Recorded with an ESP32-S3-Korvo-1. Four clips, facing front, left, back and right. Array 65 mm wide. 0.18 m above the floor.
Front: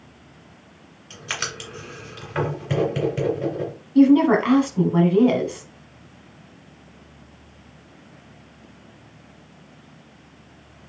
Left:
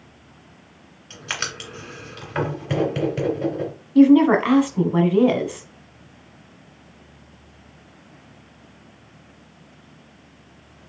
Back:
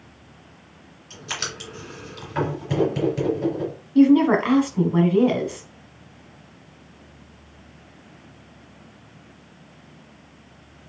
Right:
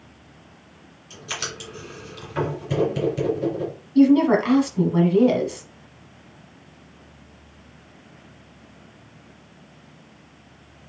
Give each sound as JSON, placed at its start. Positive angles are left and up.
{"t": 1.1, "sound": "writing", "azimuth_deg": 65, "distance_m": 2.5}
{"t": 4.0, "sound": "a woman speaking", "azimuth_deg": 100, "distance_m": 1.1}